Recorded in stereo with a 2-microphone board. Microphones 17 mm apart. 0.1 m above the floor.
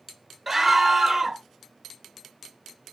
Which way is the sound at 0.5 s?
Centre (ahead or behind).